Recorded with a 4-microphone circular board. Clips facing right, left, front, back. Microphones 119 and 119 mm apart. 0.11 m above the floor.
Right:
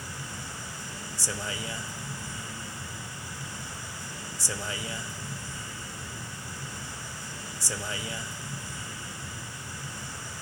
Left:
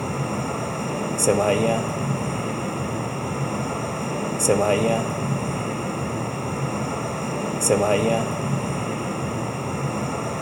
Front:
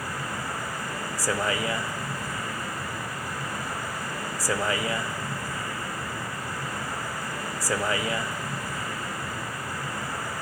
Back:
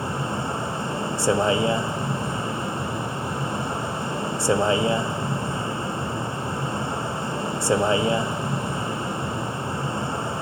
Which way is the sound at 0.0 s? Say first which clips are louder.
Left 16 dB, back 6 dB; 120° left.